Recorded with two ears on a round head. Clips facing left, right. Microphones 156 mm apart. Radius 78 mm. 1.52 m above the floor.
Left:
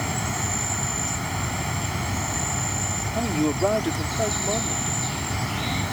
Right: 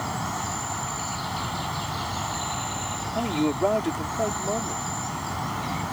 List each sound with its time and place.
0.0 s an insect: 30° left (ahead or behind)
3.1 s a man speaking: 5° left (ahead or behind)